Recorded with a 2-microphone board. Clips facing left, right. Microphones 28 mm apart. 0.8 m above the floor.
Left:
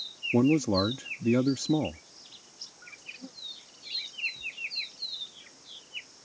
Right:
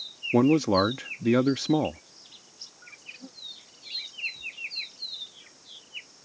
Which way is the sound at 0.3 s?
50° right (ahead or behind).